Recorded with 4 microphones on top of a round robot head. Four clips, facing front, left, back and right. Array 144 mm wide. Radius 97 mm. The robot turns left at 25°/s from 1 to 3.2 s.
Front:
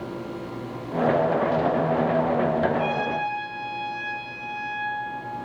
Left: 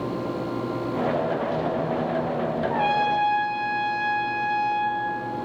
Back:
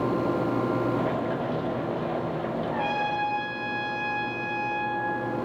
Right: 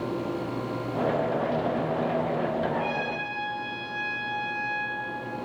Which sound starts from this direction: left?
A trumpet, at 2.7 s.